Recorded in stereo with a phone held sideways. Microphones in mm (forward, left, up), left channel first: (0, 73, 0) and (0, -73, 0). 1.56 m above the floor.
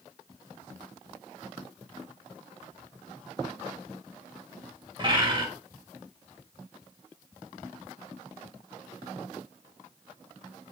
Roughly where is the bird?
Right.